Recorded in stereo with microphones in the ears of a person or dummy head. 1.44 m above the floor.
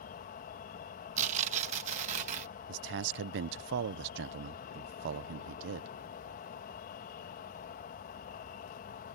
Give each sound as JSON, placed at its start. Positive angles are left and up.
{"t": 0.0, "sound": "an insect", "side_deg": 45}
{"t": 1.2, "sound": "tearing paper", "side_deg": -40}
{"t": 2.7, "sound": "a man speaking", "side_deg": -65}